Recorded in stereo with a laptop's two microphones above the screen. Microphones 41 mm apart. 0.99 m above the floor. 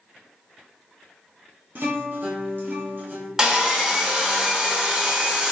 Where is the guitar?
55° right (ahead or behind), 0.9 m.